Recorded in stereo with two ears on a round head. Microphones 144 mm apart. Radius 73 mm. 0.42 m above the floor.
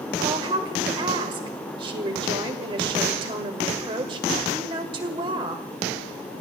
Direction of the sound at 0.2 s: 30° right (ahead or behind).